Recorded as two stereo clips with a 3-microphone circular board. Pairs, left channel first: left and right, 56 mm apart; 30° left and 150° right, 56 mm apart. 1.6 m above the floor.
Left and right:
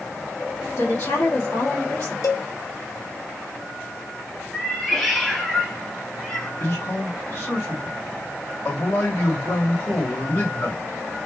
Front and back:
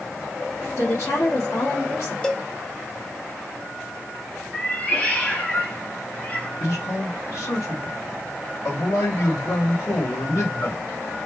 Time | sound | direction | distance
0.8 | a woman speaking | 60° left | 1.2 m
2.2 | a cowbell | 105° left | 0.6 m
4.5 | a cat meowing | 20° left | 0.9 m
6.6 | a man speaking | 55° left | 2 m